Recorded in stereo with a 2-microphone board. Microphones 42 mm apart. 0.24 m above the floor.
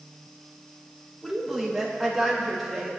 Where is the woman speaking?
5° left (ahead or behind), 6.5 m.